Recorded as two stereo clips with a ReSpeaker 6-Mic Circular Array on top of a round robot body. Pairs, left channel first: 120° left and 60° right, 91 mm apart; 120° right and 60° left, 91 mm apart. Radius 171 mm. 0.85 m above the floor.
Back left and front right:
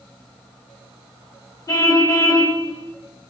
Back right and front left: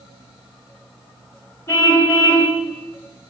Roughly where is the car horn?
Behind.